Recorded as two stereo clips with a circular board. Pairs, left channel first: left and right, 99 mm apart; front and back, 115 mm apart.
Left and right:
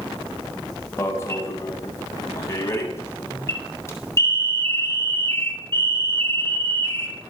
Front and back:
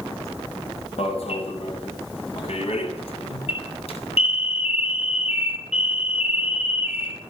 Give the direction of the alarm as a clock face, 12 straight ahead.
11 o'clock.